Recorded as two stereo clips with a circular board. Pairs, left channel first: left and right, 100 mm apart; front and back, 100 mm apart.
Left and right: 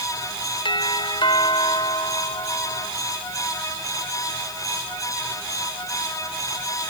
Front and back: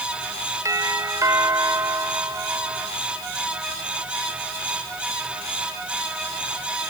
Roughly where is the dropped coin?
I don't hear a dropped coin.